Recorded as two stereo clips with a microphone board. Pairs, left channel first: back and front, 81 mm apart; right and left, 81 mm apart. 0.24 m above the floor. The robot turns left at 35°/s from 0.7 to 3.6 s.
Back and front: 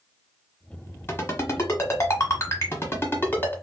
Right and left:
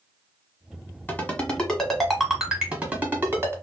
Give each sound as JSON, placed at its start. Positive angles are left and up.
{"t": 1.1, "sound": "a ringtone", "azimuth_deg": -145, "distance_m": 1.1}